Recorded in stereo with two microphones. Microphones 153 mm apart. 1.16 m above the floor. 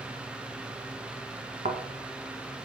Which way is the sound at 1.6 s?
55° right (ahead or behind).